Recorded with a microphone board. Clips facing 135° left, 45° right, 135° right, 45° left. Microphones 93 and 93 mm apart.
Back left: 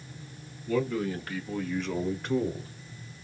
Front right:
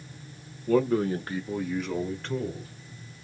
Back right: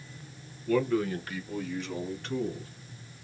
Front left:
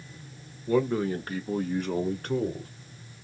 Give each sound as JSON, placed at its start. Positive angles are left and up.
{"t": 0.7, "sound": "a man speaking", "azimuth_deg": -20, "distance_m": 1.3}